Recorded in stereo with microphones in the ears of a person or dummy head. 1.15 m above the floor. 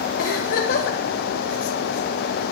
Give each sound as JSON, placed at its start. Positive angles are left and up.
{"t": 0.2, "sound": "a giggle", "side_deg": 50, "distance_m": 0.9}